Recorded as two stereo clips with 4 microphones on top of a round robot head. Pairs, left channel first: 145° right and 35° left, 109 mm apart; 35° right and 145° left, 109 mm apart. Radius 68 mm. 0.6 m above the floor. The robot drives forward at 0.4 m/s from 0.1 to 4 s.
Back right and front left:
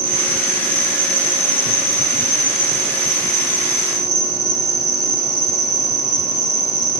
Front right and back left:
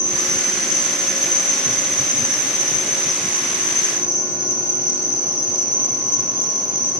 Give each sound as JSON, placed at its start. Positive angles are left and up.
{"t": 0.0, "sound": "an insect", "azimuth_deg": 80, "distance_m": 7.0}